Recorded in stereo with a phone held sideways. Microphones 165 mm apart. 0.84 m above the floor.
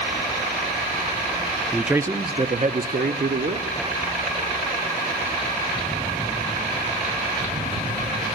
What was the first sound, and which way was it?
A man speaking, centre (ahead or behind).